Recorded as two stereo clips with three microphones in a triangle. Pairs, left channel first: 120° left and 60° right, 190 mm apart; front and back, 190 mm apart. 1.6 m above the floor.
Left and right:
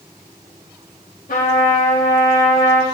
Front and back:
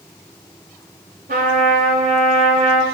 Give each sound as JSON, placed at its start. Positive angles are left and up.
{"t": 1.3, "sound": "a trumpet", "azimuth_deg": 160, "distance_m": 4.0}